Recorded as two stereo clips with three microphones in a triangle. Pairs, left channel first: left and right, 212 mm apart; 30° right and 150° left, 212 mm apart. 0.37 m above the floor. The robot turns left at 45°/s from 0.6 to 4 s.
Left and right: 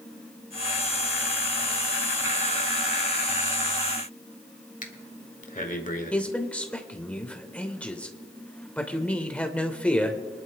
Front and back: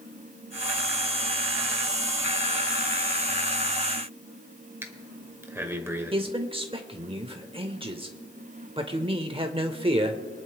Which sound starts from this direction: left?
Breathing, at 4.8 s.